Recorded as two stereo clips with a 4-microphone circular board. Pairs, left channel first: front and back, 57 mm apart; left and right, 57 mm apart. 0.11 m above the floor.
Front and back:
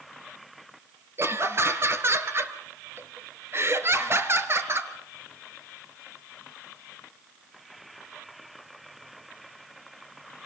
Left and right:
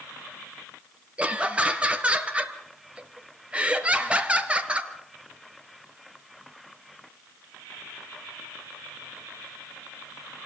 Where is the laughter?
155° right, 2.5 m.